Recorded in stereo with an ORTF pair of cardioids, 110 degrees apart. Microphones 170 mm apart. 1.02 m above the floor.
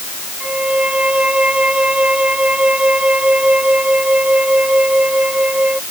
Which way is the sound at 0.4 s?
5° right.